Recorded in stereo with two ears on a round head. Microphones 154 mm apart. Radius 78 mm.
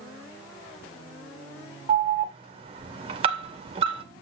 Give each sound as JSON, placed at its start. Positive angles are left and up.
{"t": 1.9, "sound": "an alarm", "side_deg": -35, "distance_m": 2.0}